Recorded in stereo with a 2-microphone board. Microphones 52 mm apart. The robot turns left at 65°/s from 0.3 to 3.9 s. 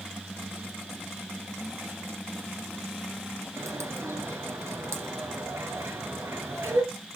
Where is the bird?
80° right, 2.5 m; by 6.8 s 60° right (ahead or behind), 2.5 m.